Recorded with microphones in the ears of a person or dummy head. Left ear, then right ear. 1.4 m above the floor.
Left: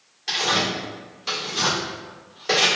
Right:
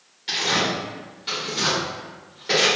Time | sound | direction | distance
0.3 | tearing paper | 35° left (ahead or behind) | 2.0 m